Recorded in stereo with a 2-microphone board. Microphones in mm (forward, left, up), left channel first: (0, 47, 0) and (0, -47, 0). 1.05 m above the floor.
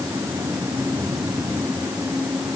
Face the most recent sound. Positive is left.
No sound to turn to.